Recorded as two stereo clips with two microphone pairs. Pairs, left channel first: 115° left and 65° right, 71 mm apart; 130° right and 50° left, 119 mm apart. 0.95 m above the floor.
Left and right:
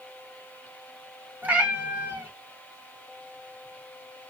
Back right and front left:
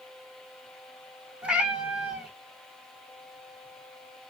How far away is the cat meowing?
About 0.7 m.